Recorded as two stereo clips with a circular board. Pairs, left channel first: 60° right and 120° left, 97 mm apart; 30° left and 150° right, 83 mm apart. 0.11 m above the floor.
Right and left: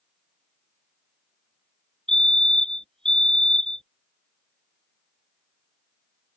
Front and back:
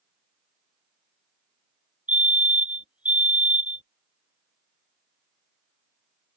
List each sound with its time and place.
2.1 s a fire alarm: 125° right